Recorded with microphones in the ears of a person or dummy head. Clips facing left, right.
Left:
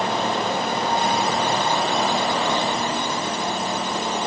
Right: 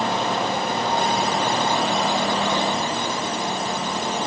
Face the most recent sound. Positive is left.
No sound to turn to.